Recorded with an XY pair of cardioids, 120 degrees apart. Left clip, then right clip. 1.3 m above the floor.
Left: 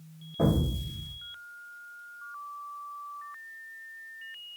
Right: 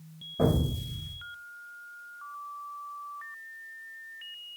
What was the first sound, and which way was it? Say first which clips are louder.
An explosion: right 1 dB; straight ahead.